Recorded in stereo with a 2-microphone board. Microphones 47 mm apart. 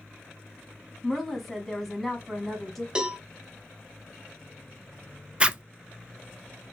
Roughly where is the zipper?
Right.